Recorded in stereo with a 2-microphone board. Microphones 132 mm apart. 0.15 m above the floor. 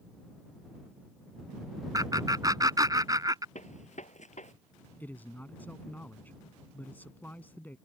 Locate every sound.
1.9 s laughter: 30° right (ahead or behind)
3.5 s a gunshot: 65° left (ahead or behind)
5.0 s a man speaking: 15° left (ahead or behind)